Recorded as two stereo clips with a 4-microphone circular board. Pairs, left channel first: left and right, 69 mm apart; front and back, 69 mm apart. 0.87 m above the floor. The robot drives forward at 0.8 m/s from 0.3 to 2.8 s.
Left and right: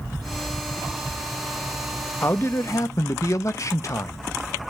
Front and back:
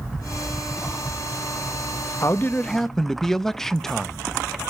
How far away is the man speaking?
About 0.8 m.